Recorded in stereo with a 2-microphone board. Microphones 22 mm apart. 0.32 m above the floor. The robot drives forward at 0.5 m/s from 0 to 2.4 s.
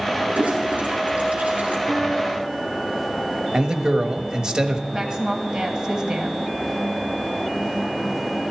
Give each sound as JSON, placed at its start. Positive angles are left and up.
{"t": 0.3, "sound": "a toilet flushing", "side_deg": -75, "distance_m": 3.0}
{"t": 1.9, "sound": "a piano", "side_deg": -15, "distance_m": 5.0}
{"t": 3.5, "sound": "a man speaking", "side_deg": -35, "distance_m": 1.3}
{"t": 4.9, "sound": "a woman speaking", "side_deg": -35, "distance_m": 2.5}